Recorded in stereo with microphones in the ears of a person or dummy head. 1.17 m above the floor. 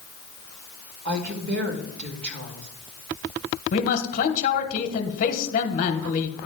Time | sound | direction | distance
1.1 | a woman speaking | 60° right (ahead or behind) | 1.9 m
3.7 | a man speaking | 50° left (ahead or behind) | 1.1 m